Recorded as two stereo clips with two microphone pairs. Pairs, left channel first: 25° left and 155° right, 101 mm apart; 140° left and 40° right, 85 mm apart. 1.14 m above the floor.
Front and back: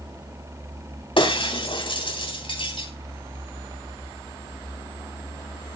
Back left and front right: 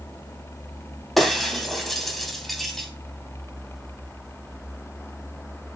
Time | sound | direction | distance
1.2 | breaking glass | 55° left | 3 m